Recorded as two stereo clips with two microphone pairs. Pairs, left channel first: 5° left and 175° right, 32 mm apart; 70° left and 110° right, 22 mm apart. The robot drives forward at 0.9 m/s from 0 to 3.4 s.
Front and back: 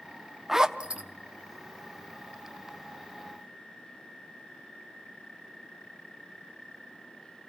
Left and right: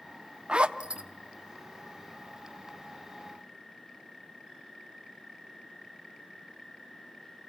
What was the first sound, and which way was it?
A zipper, 95° right.